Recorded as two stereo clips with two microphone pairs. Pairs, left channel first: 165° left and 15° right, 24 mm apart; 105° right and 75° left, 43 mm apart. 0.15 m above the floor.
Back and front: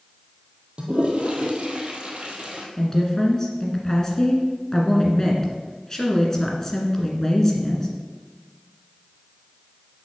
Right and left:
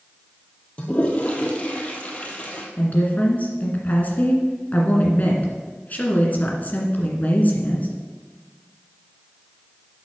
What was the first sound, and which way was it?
A toilet flushing, 50° right.